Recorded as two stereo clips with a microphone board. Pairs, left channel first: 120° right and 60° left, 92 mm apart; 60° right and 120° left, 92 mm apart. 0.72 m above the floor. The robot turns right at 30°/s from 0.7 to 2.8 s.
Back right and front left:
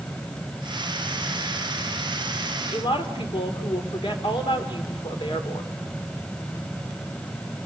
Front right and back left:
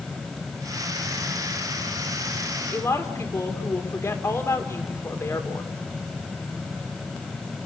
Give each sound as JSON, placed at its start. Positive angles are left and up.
{"t": 2.7, "sound": "a woman speaking", "azimuth_deg": -120, "distance_m": 2.5}